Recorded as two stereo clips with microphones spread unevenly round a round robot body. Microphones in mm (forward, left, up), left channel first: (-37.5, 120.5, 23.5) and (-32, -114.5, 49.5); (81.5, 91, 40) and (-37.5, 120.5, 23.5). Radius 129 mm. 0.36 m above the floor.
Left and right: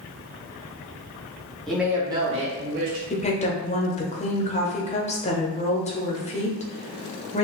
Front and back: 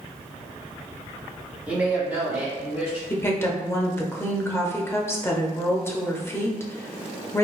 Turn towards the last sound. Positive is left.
turn(degrees=55)